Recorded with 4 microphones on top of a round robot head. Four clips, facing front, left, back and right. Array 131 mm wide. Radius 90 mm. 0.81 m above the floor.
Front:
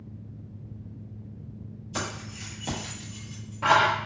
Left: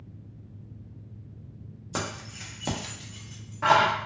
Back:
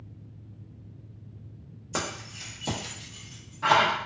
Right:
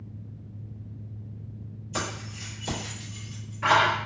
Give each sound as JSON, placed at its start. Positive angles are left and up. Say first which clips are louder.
{"t": 1.9, "sound": "keys jangling", "louder": "right 1 dB, back 1 dB", "azimuth_deg": 140, "distance_m": 0.8}